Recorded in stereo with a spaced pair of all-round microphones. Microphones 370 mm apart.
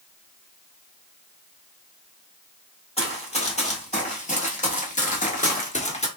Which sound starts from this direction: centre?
Running footsteps, at 3.0 s.